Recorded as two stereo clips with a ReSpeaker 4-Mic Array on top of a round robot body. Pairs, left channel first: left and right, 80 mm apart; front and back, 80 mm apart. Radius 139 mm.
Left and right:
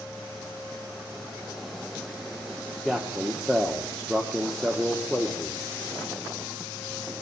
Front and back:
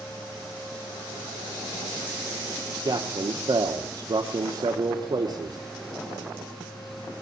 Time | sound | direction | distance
2.9 | a man speaking | 175° right | 1.3 m